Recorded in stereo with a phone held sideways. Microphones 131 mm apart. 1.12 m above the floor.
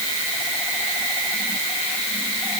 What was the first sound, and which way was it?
Only background noise.